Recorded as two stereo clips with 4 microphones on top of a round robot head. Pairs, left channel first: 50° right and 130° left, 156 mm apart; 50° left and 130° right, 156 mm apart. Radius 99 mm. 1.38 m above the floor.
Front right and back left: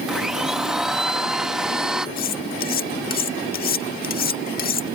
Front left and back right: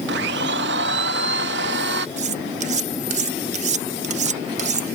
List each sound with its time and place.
0.1 s a blender: 145° right
2.2 s cutlery clinking: 80° right